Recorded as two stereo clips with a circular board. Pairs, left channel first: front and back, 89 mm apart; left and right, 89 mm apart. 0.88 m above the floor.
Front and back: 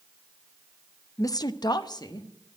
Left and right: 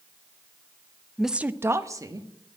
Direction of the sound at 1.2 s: 5° left.